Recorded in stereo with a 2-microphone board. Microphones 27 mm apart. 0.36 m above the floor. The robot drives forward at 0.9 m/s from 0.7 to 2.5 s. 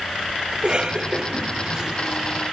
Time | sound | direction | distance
0.5 | a cough | 40° right (ahead or behind) | 2.0 m